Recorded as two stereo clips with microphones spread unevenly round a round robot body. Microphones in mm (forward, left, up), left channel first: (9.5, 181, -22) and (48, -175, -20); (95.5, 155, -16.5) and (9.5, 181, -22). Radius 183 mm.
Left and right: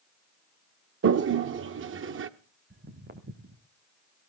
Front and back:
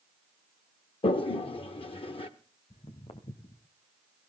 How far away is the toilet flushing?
About 0.6 m.